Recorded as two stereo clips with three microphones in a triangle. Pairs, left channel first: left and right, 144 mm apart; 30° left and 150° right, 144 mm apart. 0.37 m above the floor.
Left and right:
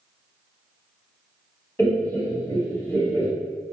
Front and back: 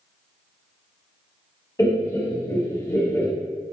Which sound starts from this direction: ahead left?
Laughter, at 1.8 s.